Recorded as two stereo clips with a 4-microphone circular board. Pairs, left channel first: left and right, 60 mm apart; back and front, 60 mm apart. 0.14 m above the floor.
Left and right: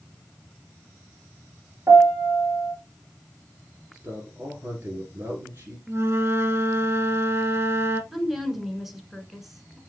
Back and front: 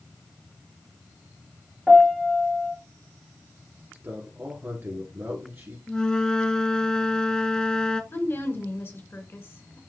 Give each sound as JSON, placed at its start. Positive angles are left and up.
{"t": 1.9, "sound": "a piano", "azimuth_deg": -100, "distance_m": 2.5}
{"t": 3.9, "sound": "a man speaking", "azimuth_deg": -40, "distance_m": 2.5}
{"t": 5.9, "sound": "a flute", "azimuth_deg": -110, "distance_m": 0.6}
{"t": 8.1, "sound": "a woman speaking", "azimuth_deg": -175, "distance_m": 1.6}